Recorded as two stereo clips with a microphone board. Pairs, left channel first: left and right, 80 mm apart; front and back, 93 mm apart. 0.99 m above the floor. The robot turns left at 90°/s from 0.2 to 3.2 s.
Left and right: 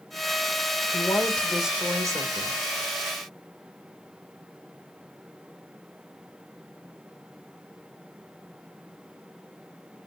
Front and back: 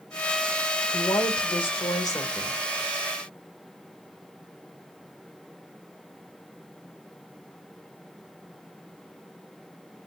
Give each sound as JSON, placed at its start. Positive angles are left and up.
{"t": 0.9, "sound": "a woman speaking", "azimuth_deg": 60, "distance_m": 2.5}